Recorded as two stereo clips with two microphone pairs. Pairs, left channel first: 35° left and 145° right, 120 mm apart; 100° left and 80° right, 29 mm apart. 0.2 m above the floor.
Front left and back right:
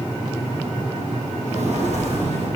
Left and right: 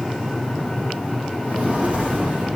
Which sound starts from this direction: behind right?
Footsteps, at 1.4 s.